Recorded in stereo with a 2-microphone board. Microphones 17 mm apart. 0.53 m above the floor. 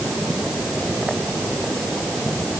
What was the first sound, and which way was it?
Only background noise.